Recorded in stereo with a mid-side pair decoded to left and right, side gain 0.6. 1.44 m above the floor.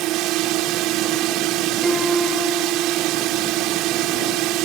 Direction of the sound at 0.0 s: 65° right.